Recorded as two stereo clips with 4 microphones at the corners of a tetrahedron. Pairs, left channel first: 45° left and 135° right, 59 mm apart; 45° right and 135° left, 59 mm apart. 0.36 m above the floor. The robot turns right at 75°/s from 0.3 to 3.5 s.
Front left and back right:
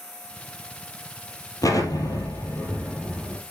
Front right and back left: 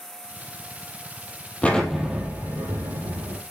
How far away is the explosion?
About 2.5 m.